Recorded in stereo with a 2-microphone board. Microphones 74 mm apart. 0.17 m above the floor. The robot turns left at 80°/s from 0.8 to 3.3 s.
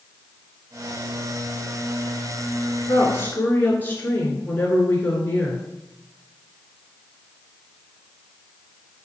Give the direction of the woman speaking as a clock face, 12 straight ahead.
10 o'clock.